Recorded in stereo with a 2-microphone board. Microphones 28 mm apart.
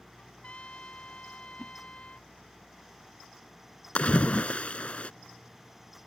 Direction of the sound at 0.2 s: 50° left (ahead or behind).